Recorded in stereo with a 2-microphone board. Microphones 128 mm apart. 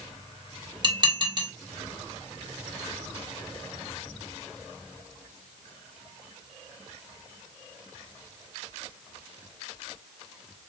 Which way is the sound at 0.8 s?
35° right (ahead or behind).